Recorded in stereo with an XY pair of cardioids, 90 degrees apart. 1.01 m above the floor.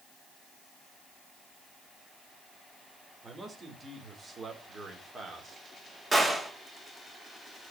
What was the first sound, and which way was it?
A man speaking, 40° right.